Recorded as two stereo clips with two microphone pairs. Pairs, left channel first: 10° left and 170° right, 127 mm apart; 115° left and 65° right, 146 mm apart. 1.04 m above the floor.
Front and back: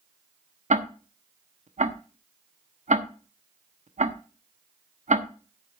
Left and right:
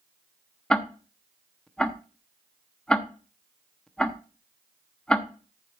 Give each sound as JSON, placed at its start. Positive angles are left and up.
{"t": 0.7, "sound": "ticking", "azimuth_deg": -160, "distance_m": 0.9}